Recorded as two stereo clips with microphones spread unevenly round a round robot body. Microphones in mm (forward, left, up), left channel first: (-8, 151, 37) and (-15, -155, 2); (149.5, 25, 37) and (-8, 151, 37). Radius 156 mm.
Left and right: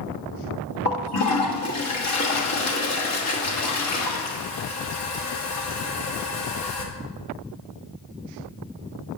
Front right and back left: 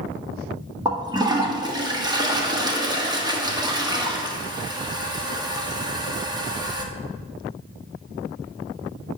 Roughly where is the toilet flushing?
Left.